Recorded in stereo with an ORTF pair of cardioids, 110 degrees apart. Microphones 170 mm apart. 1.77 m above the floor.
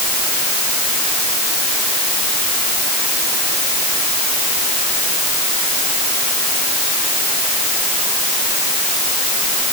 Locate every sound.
Only background noise.